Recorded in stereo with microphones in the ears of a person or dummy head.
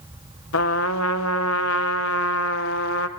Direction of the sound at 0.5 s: 65° left (ahead or behind).